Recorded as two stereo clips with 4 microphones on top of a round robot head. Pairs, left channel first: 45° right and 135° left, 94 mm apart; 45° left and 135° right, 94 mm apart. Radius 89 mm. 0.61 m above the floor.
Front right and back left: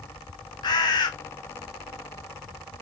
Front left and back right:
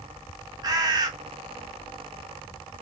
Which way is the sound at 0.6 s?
90° right.